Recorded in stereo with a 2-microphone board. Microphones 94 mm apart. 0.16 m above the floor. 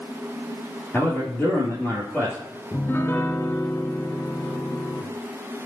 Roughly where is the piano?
Left.